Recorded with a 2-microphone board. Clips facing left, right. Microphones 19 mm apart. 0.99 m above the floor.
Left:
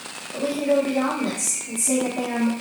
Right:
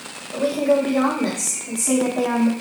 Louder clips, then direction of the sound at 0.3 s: Right 3 dB; 75° right (ahead or behind).